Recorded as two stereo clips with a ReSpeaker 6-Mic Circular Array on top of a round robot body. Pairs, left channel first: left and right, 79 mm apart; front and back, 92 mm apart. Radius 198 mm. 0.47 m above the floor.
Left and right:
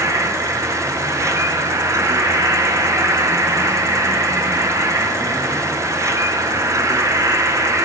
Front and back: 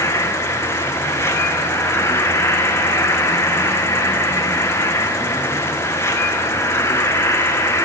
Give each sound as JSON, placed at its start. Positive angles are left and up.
{"t": 0.0, "sound": "an insect", "azimuth_deg": -55, "distance_m": 1.6}